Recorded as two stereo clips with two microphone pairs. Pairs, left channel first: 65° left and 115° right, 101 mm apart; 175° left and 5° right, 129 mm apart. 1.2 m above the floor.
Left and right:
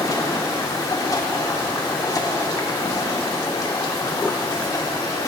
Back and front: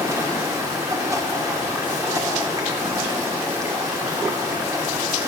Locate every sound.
0.0 s running water: 40° left, 0.9 m